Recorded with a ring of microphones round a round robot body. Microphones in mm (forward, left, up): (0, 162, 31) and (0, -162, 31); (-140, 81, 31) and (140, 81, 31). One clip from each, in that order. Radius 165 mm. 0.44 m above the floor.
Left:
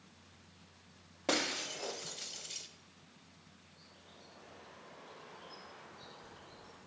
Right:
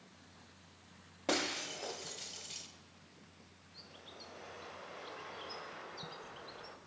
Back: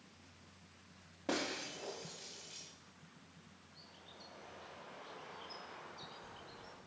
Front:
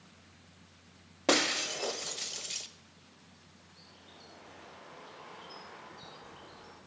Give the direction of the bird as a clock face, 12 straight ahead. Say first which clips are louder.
Right 8 dB, front 1 dB; 3 o'clock.